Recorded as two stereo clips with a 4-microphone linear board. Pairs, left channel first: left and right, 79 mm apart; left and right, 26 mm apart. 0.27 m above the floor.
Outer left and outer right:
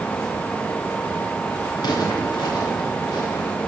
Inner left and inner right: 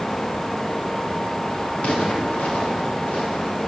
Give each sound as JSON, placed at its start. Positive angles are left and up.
{"t": 1.8, "sound": "footsteps", "side_deg": 65, "distance_m": 2.0}